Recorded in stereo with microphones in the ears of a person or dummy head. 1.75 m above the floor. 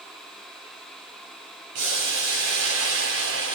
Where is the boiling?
70° right (ahead or behind), 5.5 m.